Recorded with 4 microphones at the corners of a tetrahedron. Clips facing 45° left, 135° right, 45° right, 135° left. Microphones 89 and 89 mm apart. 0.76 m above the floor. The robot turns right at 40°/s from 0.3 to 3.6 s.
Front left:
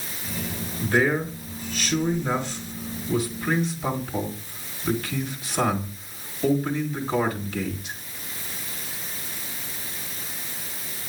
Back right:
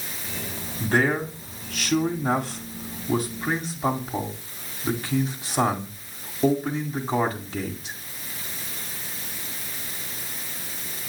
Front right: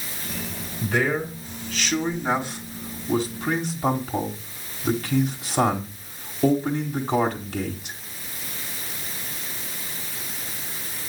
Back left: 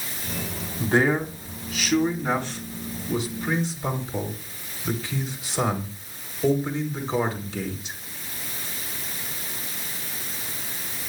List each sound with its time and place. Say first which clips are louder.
0.8 s a man speaking: even, back left 2 dB; 170° left, 1.9 m; by 8.0 s 75° right, 1.9 m